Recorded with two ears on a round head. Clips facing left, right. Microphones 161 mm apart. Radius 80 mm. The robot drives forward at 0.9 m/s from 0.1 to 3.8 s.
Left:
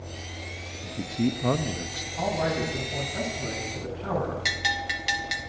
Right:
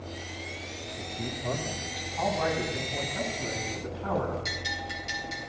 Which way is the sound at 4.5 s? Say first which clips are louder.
Left 4 dB; 85° left.